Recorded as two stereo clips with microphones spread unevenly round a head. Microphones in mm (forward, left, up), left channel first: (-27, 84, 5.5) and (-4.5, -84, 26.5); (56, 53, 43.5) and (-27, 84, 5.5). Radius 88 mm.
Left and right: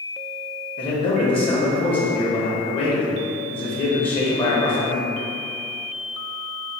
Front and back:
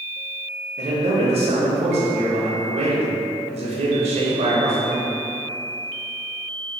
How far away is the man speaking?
About 1.0 m.